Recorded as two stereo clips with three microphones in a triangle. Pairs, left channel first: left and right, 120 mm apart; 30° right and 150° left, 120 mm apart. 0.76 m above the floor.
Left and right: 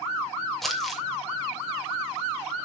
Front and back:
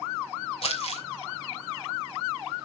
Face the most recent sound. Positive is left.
turn(degrees=0)